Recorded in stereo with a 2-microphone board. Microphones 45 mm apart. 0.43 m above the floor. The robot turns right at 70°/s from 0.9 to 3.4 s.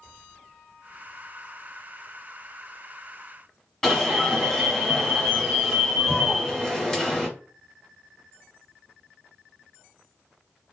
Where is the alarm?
10° left (ahead or behind), 1.5 m.